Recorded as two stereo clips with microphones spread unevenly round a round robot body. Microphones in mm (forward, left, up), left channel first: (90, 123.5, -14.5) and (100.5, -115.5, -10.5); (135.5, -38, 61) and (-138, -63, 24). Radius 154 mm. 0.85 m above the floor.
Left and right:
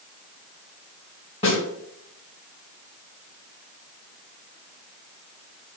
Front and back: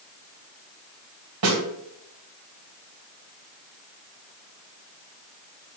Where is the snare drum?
165° left, 2.5 m.